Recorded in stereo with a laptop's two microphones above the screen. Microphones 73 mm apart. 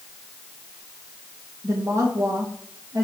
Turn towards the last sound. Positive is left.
turn(degrees=-45)  # may be behind; listen again after turning